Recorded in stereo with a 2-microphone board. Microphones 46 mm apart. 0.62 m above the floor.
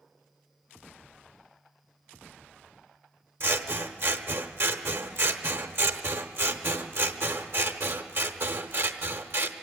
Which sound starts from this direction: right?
Scissors, at 3.4 s.